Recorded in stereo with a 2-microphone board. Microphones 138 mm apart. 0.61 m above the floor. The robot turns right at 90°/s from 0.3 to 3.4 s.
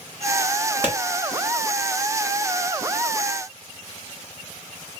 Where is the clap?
15° right (ahead or behind), 1.1 m; by 0.9 s 20° right (ahead or behind), 1.1 m.